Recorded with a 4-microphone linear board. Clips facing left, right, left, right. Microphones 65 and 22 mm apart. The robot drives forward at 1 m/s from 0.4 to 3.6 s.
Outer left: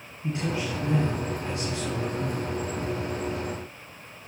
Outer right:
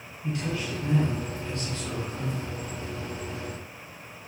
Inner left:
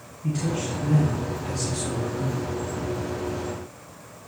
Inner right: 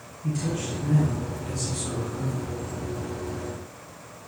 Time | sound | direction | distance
0.2 | a man speaking | 30° left (ahead or behind) | 2.5 m